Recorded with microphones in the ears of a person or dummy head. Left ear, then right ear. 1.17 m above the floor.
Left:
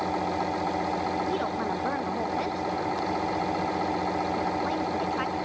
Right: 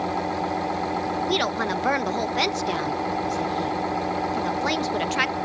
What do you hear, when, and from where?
1.2 s a woman speaking: 70° right (ahead or behind), 1.4 m